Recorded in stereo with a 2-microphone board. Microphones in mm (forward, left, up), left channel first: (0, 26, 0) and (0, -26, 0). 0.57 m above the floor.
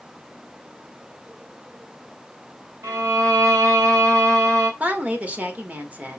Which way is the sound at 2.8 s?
75° right (ahead or behind).